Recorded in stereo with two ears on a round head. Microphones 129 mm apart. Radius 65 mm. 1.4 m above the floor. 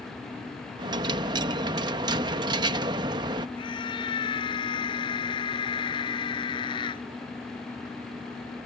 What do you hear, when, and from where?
0.8 s a dropped coin: 30° right (ahead or behind)
3.6 s a scream: 35° left (ahead or behind)